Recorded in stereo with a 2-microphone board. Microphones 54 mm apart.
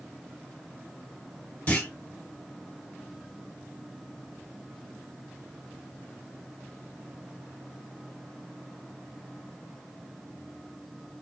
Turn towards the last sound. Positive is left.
turn(degrees=30)  # may be behind; listen again after turning